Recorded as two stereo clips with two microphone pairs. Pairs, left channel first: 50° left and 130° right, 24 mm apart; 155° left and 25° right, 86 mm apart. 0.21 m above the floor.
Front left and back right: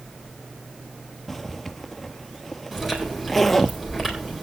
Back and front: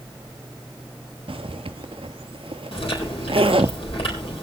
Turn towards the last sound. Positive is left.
turn(degrees=150)